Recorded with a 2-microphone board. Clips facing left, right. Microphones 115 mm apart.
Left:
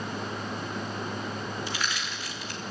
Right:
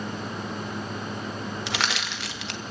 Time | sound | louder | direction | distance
1.7 | crushing | right 4 dB | 75° right (ahead or behind) | 1.2 m